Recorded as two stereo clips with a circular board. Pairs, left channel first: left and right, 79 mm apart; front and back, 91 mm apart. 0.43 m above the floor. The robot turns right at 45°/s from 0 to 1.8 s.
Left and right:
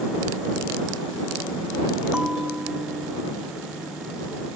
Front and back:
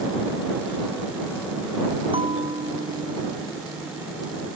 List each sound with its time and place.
2.1 s a bell: 165° right